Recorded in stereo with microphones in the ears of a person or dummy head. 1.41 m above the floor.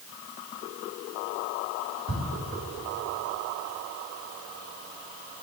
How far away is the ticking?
About 4 m.